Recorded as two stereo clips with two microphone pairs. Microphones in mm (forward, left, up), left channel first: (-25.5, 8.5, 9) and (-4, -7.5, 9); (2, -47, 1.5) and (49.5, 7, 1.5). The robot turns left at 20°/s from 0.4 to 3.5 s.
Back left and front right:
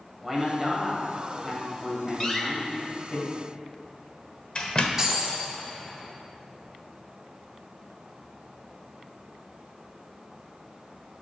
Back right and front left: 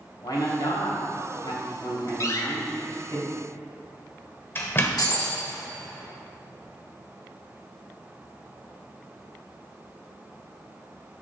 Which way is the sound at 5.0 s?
110° right.